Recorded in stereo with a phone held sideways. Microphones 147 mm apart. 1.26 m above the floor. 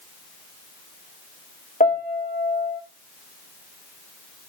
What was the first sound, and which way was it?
A piano, 75° left (ahead or behind).